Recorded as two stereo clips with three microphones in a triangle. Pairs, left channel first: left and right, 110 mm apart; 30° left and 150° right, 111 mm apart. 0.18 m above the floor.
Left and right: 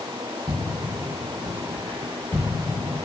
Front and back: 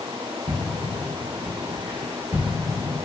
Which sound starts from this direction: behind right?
Footsteps, at 0.5 s.